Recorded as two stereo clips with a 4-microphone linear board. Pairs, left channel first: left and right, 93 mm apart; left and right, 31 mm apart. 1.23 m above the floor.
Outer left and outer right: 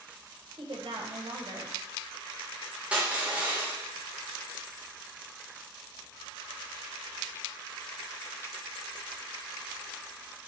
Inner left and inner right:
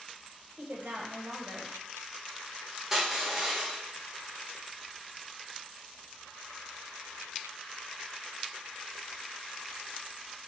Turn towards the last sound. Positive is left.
turn(degrees=-15)  # may be behind; listen again after turning